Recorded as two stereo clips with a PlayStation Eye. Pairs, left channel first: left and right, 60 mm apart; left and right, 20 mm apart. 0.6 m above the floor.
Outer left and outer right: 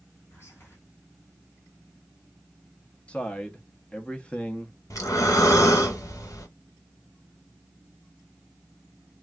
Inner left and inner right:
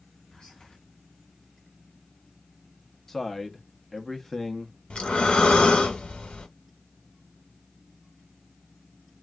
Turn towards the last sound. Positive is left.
turn(degrees=70)  # may be behind; listen again after turning